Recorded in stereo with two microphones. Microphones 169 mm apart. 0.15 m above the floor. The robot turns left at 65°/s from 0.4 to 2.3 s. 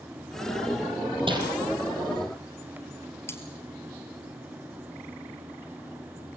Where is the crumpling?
30° right (ahead or behind), 5 m; by 1.4 s 20° right (ahead or behind), 5 m.